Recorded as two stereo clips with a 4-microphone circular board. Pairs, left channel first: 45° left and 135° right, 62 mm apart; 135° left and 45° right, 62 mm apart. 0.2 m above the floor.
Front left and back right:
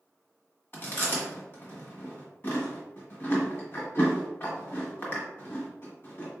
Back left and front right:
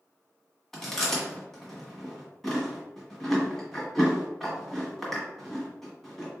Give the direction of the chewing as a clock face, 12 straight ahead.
10 o'clock.